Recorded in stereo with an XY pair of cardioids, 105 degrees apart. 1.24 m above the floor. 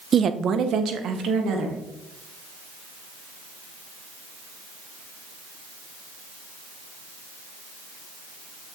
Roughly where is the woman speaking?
Ahead right.